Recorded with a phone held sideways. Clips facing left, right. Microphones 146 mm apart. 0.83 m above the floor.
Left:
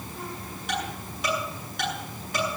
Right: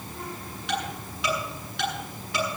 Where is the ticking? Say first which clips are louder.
Right 1 dB; 45° left (ahead or behind), 9 m.